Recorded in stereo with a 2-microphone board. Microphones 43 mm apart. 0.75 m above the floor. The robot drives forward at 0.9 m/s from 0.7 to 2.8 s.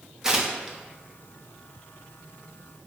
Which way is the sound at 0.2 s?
15° right (ahead or behind).